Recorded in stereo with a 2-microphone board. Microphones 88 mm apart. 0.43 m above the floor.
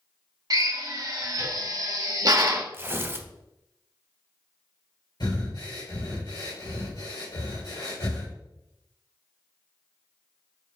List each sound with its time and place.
0.5 s a drill: 45° right (ahead or behind), 0.8 m
2.7 s tearing paper: 30° right (ahead or behind), 0.5 m
5.2 s breathing: 55° left (ahead or behind), 2.0 m